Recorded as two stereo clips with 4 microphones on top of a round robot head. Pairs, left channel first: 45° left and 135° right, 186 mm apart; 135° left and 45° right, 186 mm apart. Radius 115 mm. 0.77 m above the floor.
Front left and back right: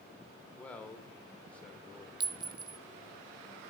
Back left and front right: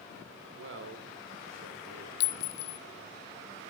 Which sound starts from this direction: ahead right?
A man speaking, at 0.6 s.